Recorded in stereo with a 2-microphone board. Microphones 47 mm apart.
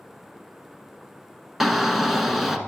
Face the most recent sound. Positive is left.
turn(degrees=-5)  # may be behind; listen again after turning